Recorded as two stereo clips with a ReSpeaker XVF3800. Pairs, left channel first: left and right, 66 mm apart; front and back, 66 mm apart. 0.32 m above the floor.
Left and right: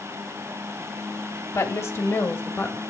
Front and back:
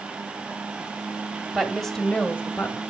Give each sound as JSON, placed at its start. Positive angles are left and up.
{"t": 1.5, "sound": "a woman speaking", "azimuth_deg": 95, "distance_m": 1.2}